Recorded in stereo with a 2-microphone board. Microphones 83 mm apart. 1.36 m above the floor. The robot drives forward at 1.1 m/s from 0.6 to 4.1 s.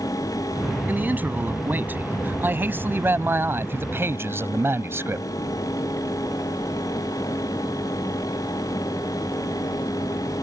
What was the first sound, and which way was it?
A man speaking, 20° right (ahead or behind).